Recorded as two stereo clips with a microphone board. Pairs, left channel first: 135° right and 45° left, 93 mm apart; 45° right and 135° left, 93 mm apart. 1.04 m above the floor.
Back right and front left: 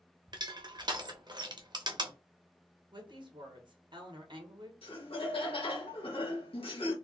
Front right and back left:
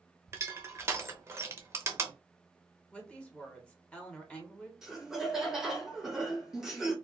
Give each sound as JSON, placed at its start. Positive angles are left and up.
{"t": 0.3, "sound": "crushing", "azimuth_deg": 75, "distance_m": 0.7}
{"t": 2.9, "sound": "a woman speaking", "azimuth_deg": 30, "distance_m": 1.3}
{"t": 4.8, "sound": "laughter", "azimuth_deg": -140, "distance_m": 0.9}